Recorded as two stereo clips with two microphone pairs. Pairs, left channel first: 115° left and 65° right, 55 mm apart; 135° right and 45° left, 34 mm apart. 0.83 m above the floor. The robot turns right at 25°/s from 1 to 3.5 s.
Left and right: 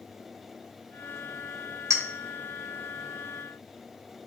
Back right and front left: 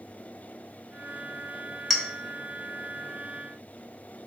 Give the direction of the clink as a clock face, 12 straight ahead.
2 o'clock.